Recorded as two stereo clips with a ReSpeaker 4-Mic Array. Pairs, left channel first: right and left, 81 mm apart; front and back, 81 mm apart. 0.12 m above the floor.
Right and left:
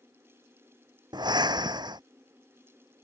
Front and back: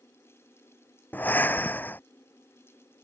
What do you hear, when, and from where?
1.1 s breathing: 65° left